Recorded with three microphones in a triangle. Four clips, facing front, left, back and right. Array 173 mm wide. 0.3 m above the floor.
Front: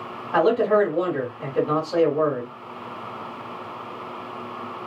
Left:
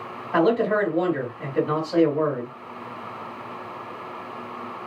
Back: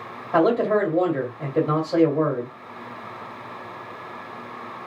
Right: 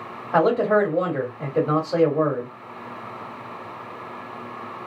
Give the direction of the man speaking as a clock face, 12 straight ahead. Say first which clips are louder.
Right 2 dB, front 1 dB; 4 o'clock.